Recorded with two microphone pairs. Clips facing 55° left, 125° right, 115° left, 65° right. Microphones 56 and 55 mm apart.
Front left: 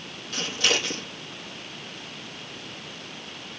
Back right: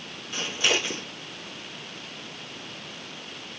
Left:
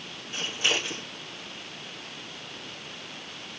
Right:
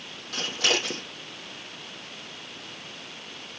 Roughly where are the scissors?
Ahead right.